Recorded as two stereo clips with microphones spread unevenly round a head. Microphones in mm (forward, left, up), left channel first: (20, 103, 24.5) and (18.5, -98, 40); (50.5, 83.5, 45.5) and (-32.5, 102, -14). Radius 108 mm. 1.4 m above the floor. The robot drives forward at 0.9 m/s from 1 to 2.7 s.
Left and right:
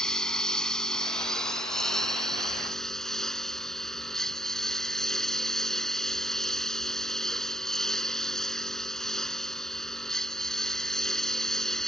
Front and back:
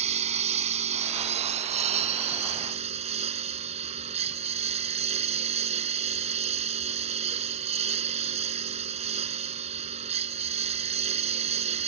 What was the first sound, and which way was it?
A lawn mower, straight behind.